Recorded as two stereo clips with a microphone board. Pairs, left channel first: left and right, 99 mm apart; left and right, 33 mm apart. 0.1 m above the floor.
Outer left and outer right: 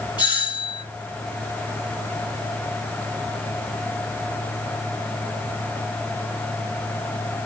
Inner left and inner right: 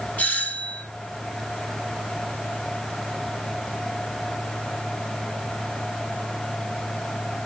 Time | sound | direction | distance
0.2 | a doorbell | 50° left (ahead or behind) | 4 m